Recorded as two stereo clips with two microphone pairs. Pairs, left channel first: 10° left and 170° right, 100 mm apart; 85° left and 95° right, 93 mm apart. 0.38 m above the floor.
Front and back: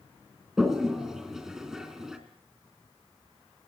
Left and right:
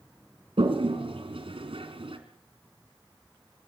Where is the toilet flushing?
85° right, 3 m.